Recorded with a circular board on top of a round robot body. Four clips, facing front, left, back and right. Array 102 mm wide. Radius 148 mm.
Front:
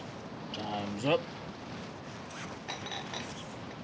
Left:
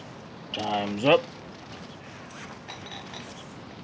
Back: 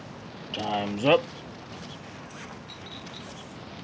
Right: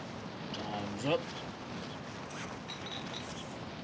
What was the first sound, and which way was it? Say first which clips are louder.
A man speaking: left 12 dB, back 8 dB; 120° left.